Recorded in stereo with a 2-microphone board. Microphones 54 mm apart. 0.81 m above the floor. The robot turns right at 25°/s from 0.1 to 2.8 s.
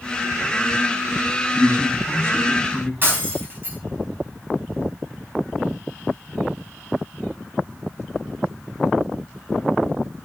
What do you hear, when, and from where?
1.5 s a man speaking: 60° right, 5 m; by 2.9 s 25° right, 5 m
3.0 s breaking glass: 40° right (ahead or behind), 4 m